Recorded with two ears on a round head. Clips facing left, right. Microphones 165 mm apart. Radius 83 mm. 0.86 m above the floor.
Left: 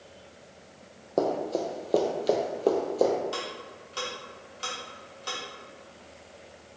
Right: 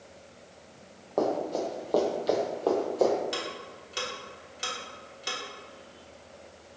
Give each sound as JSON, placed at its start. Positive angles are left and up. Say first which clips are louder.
{"t": 1.2, "sound": "running footsteps", "louder": "left 1 dB", "side_deg": 30, "distance_m": 1.2}
{"t": 3.3, "sound": "ticking", "louder": "even", "side_deg": -20, "distance_m": 1.2}